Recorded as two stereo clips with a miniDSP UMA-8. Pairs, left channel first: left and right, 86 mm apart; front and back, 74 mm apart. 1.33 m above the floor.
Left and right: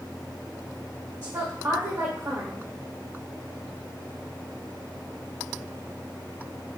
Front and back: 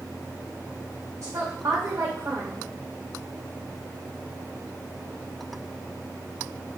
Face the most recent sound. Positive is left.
turn(degrees=-145)